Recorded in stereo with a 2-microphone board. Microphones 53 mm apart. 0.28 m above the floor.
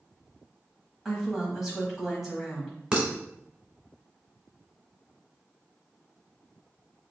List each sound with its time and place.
1.1 s a woman speaking: 10° right (ahead or behind), 1.3 m
2.9 s dishes clattering: 20° right (ahead or behind), 1.3 m